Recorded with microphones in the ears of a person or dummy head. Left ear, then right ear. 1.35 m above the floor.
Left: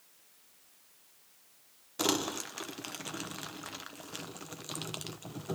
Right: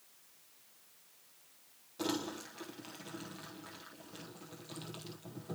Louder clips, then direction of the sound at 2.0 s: Left 7 dB; 55° left (ahead or behind).